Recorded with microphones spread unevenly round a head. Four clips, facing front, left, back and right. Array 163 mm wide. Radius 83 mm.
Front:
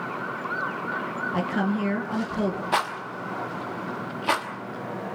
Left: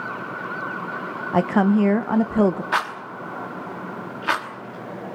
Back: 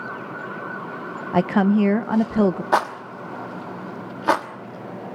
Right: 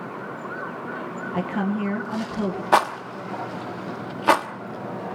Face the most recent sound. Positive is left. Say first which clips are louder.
# right 5 dB, back 5 dB
turn(degrees=-135)